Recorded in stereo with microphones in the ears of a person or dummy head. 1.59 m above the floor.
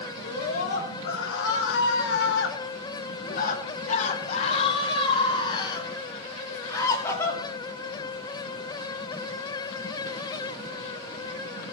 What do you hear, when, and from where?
0.2 s a scream: 60° left (ahead or behind), 1.7 m; by 7.4 s 20° left (ahead or behind), 3 m